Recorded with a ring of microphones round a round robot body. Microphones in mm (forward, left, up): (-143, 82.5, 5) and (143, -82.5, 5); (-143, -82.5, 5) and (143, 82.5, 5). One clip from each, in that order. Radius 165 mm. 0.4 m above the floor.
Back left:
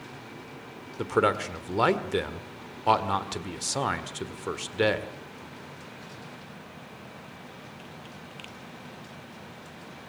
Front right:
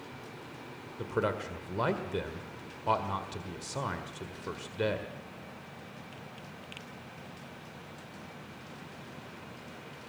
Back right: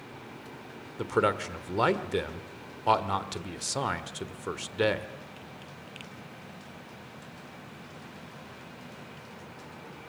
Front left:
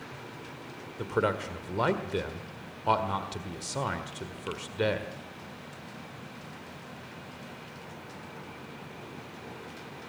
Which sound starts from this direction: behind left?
A man speaking, at 1.0 s.